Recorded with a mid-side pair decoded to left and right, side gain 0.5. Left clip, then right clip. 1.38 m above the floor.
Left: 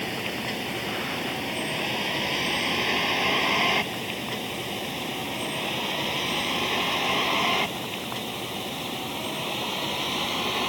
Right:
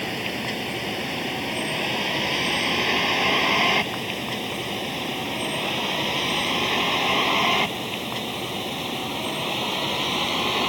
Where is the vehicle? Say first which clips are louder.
Right 2 dB; 20° right; by 10.7 s 25° right.